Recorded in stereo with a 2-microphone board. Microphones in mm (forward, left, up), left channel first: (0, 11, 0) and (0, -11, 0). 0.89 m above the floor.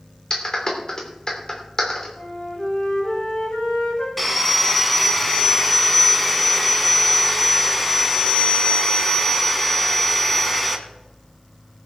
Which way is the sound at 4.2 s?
5° left (ahead or behind).